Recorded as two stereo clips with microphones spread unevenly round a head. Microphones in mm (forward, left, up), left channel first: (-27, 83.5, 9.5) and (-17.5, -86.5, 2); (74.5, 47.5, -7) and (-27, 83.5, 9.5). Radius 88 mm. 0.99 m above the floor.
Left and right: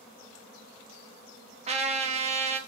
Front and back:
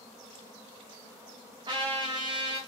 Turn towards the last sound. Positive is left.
turn(degrees=-130)